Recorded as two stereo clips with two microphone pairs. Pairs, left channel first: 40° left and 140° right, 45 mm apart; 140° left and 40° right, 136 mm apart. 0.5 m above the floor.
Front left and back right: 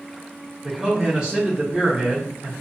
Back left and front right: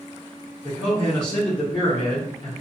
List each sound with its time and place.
0.6 s a man speaking: 175° left, 0.8 m